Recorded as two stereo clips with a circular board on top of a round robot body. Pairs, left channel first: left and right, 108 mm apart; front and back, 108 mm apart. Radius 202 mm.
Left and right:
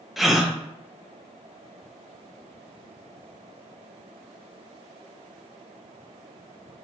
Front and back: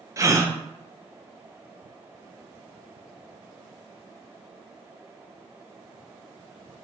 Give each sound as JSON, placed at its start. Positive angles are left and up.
{"t": 0.2, "sound": "a gasp", "azimuth_deg": -175, "distance_m": 0.7}